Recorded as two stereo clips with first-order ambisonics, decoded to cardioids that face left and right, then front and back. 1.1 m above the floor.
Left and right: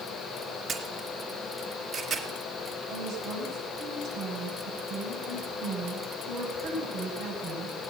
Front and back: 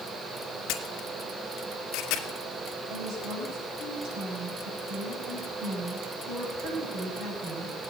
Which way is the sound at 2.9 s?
145° right.